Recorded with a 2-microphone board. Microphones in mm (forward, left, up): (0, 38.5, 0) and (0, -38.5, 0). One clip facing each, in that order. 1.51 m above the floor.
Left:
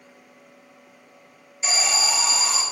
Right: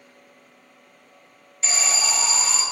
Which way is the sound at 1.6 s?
10° left (ahead or behind).